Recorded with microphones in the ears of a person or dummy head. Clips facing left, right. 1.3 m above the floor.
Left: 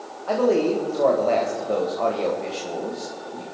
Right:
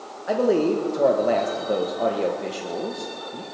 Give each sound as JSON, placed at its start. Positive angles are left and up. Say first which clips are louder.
{"t": 0.3, "sound": "a man speaking", "louder": "even", "side_deg": -15, "distance_m": 1.2}